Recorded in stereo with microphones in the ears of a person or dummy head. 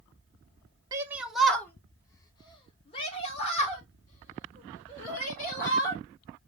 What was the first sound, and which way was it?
A shout, 20° right (ahead or behind).